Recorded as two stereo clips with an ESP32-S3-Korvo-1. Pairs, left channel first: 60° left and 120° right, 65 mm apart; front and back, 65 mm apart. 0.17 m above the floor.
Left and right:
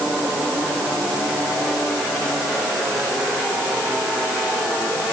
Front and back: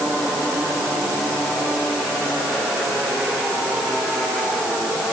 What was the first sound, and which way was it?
Only background noise.